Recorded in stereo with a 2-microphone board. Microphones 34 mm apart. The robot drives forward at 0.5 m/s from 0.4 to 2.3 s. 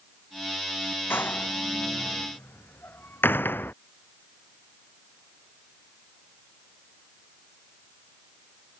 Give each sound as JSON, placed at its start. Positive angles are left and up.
{"t": 1.1, "sound": "a door slam", "side_deg": 75}